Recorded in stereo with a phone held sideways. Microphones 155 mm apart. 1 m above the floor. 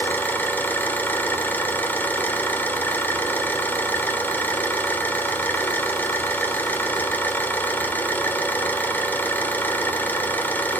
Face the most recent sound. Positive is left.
turn(degrees=10)  # may be behind; listen again after turning